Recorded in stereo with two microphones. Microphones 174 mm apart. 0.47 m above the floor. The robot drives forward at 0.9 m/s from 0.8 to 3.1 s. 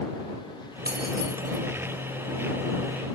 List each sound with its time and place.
0.8 s keys jangling: 65° right (ahead or behind), 1.4 m; by 1.6 s 55° right (ahead or behind), 1.5 m